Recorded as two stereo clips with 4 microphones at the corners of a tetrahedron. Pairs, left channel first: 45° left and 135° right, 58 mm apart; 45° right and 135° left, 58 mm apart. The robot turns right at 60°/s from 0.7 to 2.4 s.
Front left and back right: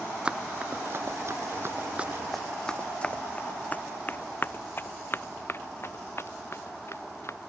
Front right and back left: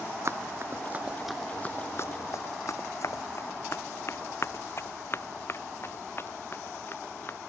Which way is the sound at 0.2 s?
155° left.